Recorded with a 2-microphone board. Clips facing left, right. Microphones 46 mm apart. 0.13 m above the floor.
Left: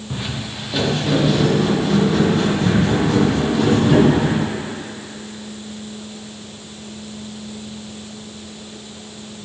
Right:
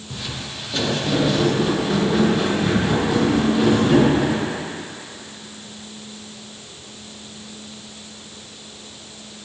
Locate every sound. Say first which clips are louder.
0.1 s footsteps: left 3 dB; 25° left (ahead or behind), 2.5 m; by 4.4 s 15° right (ahead or behind), 8 m